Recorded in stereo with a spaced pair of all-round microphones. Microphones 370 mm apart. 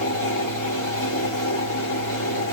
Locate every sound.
0.0 s a fan: 55° left (ahead or behind), 1.7 m